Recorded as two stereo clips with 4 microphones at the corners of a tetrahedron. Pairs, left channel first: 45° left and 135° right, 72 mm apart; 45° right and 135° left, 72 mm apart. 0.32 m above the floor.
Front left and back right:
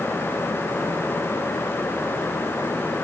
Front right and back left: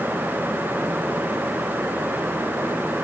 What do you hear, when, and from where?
Only background noise.